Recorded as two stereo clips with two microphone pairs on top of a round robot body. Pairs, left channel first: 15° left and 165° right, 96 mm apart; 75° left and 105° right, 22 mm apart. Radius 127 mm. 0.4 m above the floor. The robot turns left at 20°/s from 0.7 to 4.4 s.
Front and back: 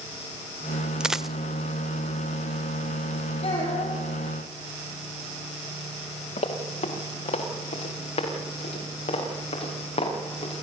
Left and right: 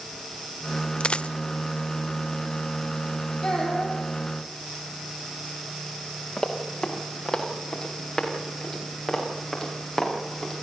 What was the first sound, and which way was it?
A dropped coin, 110° left.